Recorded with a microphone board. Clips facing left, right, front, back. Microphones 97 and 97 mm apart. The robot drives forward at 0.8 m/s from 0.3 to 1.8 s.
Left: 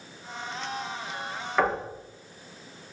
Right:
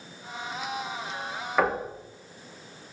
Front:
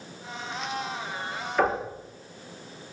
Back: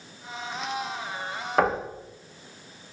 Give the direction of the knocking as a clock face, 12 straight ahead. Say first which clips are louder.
Even, back 1 dB; 6 o'clock.